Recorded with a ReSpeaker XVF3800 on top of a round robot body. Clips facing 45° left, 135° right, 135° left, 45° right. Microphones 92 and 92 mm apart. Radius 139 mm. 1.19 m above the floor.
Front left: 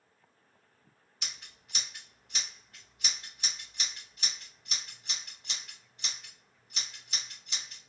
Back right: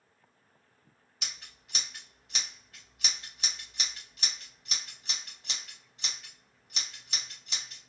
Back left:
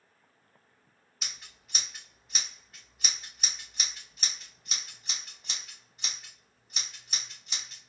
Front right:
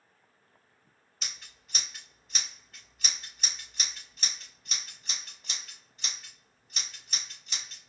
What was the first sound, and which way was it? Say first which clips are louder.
Scissors: back right 1 dB, even; 140° right.